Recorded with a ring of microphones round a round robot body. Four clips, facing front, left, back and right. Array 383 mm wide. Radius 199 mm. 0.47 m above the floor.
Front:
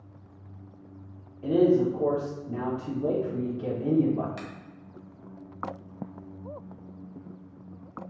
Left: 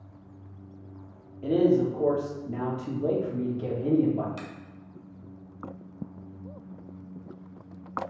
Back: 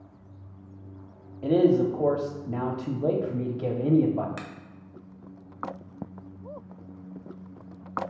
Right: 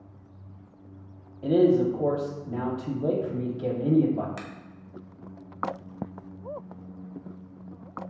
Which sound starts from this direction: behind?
A man speaking, at 1.4 s.